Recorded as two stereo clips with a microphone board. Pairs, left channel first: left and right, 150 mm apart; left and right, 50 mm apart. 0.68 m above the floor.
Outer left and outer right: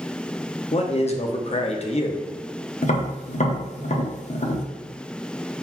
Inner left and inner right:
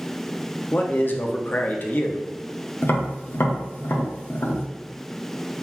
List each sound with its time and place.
0.7 s a man speaking: 45° left (ahead or behind), 0.7 m
2.8 s tapping: 55° left (ahead or behind), 0.9 m